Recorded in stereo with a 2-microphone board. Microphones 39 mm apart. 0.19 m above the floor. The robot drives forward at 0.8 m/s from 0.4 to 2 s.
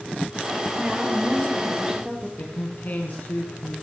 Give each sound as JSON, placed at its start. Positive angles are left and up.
{"t": 0.8, "sound": "a woman speaking", "side_deg": -25, "distance_m": 3.5}
{"t": 2.4, "sound": "a man speaking", "side_deg": 45, "distance_m": 2.0}